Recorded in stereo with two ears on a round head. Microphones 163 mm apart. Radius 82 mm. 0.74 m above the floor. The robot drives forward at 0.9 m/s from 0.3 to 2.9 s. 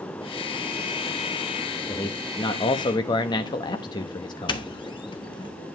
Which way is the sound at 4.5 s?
25° left (ahead or behind).